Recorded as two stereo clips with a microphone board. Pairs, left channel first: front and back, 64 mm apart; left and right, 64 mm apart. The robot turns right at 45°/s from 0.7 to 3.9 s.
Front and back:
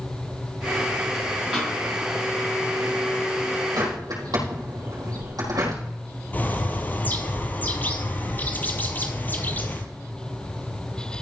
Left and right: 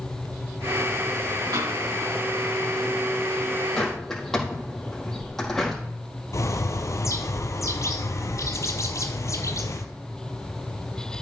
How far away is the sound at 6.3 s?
About 1.0 m.